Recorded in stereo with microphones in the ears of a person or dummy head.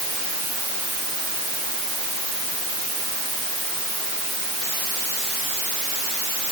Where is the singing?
No singing in this recording.